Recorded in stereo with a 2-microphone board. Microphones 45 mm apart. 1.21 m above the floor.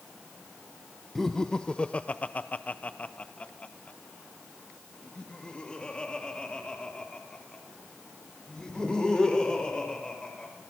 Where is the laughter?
5° left (ahead or behind), 0.9 m; by 10.5 s 20° left (ahead or behind), 6.5 m.